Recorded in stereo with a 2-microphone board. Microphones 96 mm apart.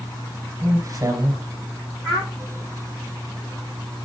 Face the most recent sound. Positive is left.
turn(degrees=30)  # may be behind; listen again after turning